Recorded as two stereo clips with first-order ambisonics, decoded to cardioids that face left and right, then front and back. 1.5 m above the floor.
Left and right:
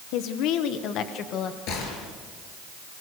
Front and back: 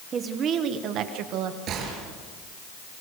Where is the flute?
I don't hear a flute.